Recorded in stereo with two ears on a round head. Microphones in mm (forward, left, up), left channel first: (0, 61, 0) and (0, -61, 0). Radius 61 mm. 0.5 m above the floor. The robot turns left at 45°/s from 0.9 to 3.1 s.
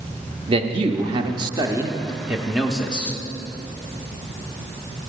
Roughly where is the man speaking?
Right.